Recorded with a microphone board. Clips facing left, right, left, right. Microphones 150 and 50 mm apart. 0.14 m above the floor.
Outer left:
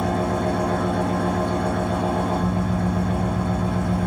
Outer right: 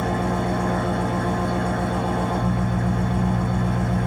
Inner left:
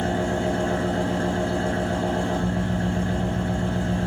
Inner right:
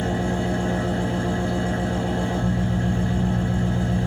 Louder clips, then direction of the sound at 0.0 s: Outer left 1 dB, inner left 1 dB; 70° left (ahead or behind).